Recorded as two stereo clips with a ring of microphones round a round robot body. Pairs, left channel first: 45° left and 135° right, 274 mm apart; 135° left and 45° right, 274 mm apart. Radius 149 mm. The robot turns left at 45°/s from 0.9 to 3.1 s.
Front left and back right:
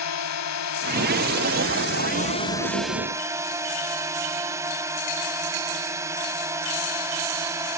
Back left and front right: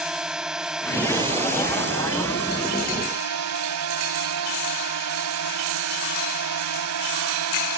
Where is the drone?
45° left; by 7.8 s 55° right.